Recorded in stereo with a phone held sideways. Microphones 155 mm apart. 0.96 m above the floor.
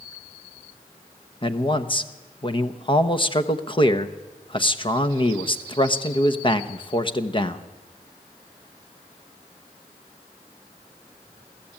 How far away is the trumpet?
No trumpet in this recording.